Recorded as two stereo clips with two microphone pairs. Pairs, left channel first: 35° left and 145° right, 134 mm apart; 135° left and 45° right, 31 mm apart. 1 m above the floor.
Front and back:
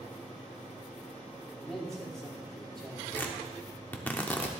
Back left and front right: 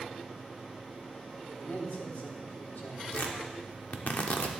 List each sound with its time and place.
1.6 s a man speaking: 120° left, 3 m
3.1 s tearing paper: 105° left, 1.1 m